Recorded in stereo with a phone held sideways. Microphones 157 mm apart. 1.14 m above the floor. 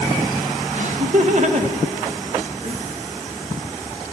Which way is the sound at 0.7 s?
55° right (ahead or behind).